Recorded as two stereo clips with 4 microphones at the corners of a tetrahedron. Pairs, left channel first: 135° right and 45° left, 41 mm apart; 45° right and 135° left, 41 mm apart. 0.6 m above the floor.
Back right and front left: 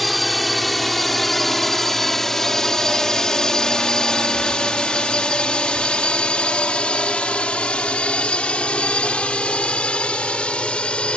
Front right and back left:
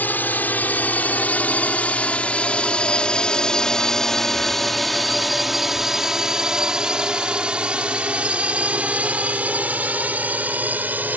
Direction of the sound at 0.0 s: 45° right.